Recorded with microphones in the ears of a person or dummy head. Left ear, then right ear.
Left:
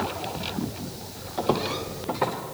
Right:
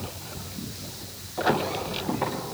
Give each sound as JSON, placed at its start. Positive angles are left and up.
{"t": 1.4, "sound": "footsteps", "side_deg": 15, "distance_m": 1.9}